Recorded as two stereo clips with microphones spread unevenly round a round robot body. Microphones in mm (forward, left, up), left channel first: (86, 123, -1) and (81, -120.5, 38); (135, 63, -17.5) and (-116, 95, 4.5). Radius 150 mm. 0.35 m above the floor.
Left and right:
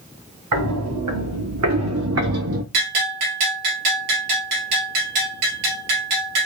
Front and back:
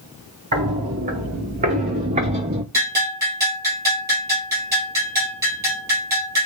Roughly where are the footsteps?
Behind right.